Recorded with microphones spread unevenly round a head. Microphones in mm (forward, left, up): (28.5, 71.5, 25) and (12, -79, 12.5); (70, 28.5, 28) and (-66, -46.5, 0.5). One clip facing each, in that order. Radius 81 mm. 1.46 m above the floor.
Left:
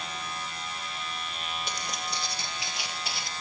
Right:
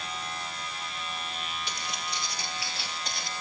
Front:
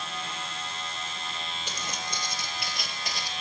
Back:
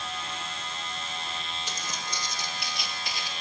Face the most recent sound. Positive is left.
turn(degrees=-5)